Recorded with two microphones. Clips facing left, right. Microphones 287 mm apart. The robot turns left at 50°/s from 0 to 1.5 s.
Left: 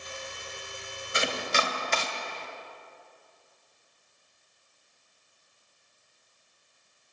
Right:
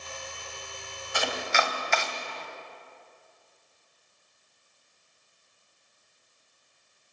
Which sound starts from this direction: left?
Chopping, at 1.1 s.